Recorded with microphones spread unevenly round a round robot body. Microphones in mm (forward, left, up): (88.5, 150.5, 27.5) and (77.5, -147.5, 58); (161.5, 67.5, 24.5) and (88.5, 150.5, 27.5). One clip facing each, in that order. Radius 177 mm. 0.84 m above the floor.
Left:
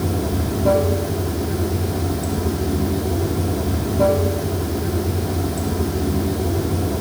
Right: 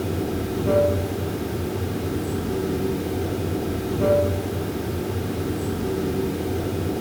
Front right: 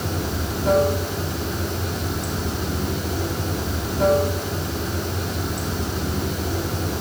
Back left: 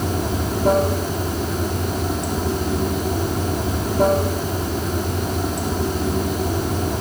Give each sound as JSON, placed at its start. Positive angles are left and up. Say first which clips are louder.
{"t": 0.0, "sound": "running water", "louder": "left 2 dB, back left 4 dB", "azimuth_deg": 90, "distance_m": 3.0}